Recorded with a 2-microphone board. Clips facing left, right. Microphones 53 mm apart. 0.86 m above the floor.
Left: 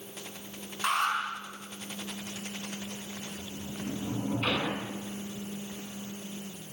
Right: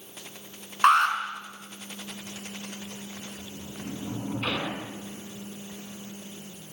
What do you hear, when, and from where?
0.8 s an alarm: 60° right (ahead or behind), 6.5 m
3.4 s a sliding door: 10° right (ahead or behind), 6 m